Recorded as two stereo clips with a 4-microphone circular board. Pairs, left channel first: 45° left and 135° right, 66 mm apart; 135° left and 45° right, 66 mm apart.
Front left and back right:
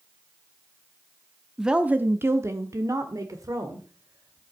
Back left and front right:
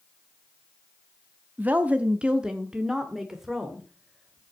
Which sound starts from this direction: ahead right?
A woman speaking, at 1.6 s.